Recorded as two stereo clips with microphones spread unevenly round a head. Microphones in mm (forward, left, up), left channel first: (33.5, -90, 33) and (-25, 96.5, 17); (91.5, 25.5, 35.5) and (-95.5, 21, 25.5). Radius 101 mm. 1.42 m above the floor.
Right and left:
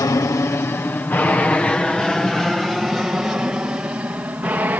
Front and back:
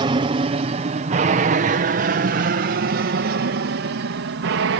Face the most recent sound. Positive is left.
turn(degrees=-175)